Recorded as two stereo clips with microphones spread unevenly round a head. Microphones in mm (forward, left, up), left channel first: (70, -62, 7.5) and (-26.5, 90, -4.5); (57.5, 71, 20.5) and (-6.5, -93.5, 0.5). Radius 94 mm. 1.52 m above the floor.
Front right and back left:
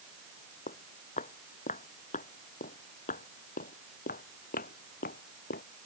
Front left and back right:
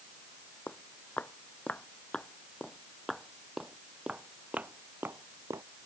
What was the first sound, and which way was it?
Footsteps, 10° right.